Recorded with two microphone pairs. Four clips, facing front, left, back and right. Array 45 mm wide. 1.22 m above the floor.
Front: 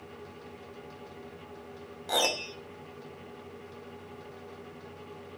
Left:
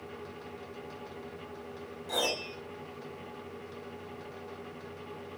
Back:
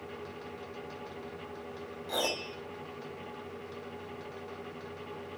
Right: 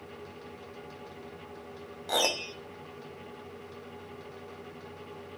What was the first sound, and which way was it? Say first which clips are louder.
A piano: right 3 dB, front 4 dB; 45° right.